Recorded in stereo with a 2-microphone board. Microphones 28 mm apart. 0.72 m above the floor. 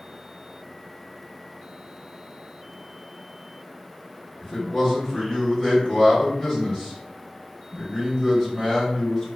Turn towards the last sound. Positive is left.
turn(degrees=25)  # may be behind; listen again after turning